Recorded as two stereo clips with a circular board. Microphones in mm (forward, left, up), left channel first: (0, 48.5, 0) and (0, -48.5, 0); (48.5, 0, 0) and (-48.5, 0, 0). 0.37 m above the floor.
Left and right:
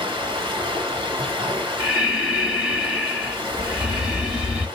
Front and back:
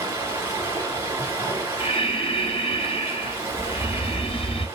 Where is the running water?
120° right, 1.1 m.